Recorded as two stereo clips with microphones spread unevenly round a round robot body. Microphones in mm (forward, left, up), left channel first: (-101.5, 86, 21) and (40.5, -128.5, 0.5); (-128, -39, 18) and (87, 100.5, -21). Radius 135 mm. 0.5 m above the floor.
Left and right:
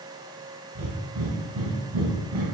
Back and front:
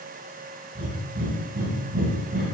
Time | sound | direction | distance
0.8 | breathing | 25° right | 0.8 m